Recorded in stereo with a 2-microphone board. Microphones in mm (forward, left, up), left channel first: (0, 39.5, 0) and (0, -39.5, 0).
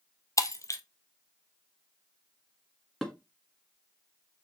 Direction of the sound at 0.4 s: 45° left (ahead or behind).